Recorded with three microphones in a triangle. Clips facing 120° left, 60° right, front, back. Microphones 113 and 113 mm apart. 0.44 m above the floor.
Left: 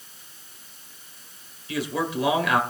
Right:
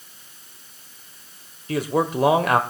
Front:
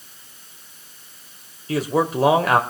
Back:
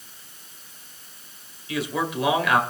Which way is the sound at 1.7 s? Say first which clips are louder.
Right 5 dB, front 6 dB; 35° right.